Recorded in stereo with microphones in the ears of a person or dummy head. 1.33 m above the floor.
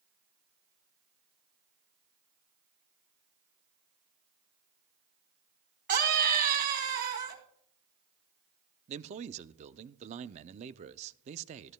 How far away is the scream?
About 2.5 m.